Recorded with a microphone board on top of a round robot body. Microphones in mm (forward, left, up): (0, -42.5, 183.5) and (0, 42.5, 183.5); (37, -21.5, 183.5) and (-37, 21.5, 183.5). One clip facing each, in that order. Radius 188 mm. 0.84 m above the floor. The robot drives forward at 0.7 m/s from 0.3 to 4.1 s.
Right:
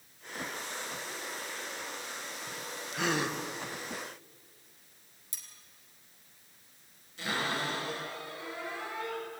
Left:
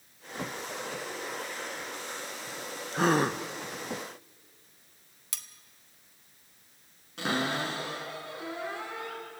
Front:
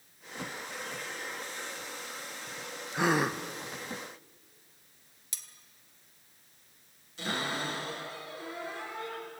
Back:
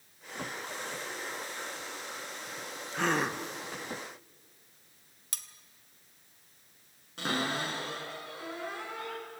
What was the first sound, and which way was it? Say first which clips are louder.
A gasp: left 6 dB, front 2 dB; 45° left.